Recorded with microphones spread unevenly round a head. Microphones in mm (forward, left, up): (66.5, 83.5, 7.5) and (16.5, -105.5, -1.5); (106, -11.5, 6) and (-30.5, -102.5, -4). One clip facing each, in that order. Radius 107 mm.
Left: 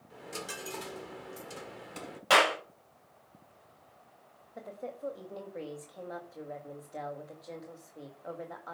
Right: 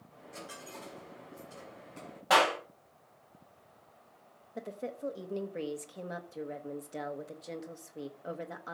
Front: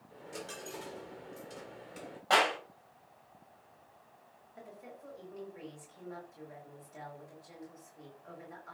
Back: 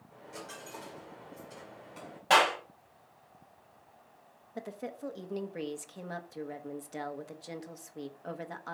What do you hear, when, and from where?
0.1 s a dropped coin: 100° left, 1.7 m
2.3 s a clap: 140° left, 5.5 m
4.5 s a woman speaking: 170° right, 1.3 m